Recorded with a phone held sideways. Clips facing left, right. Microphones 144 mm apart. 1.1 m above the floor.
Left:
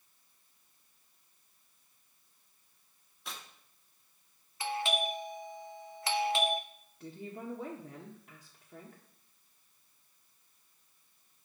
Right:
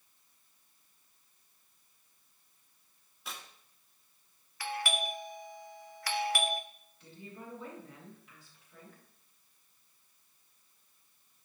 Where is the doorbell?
20° left (ahead or behind), 0.5 m.